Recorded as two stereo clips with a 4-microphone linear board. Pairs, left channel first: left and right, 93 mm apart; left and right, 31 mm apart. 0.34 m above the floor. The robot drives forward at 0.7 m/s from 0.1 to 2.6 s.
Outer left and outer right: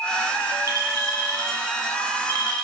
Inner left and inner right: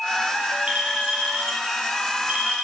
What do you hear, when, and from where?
0.7 s a clink: 40° right (ahead or behind), 6.5 m; by 2.6 s 45° right (ahead or behind), 5.5 m